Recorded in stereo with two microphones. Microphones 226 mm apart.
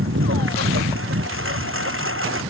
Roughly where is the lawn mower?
Right.